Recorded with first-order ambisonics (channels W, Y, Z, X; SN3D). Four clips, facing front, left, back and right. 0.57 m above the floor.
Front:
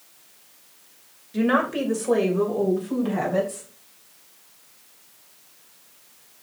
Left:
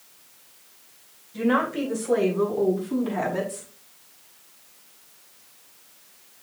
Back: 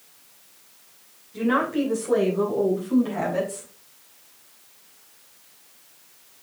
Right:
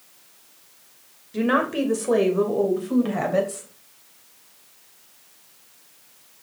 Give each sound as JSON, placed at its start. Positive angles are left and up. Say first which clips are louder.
{"t": 1.3, "sound": "a woman speaking", "louder": "right 2 dB, front 1 dB", "azimuth_deg": -55, "distance_m": 3.0}